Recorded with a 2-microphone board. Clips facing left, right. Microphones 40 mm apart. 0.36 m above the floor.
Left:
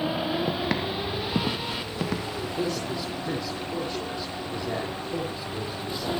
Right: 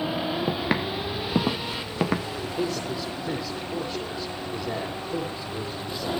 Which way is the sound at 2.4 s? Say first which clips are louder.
Even; centre (ahead or behind).